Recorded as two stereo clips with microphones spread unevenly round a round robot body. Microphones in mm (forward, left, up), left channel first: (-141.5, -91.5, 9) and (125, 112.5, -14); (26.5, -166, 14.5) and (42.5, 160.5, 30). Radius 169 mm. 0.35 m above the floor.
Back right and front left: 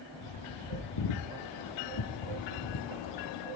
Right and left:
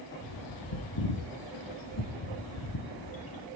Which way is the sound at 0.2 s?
125° right.